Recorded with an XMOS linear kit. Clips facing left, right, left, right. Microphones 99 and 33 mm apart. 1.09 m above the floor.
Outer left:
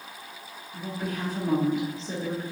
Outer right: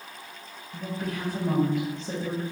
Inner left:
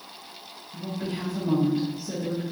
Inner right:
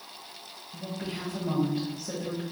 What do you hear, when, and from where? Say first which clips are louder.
0.7 s a woman speaking: even, inner left 4 dB; 65° right (ahead or behind), 1.4 m